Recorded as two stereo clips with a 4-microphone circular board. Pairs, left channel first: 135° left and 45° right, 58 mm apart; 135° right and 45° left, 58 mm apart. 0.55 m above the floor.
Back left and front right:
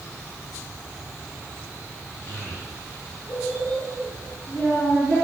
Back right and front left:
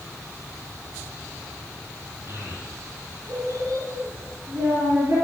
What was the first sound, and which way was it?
A child speaking, 85° left.